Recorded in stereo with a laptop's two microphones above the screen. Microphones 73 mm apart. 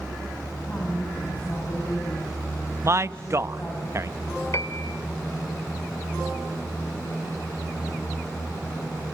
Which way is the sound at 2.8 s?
40° right (ahead or behind).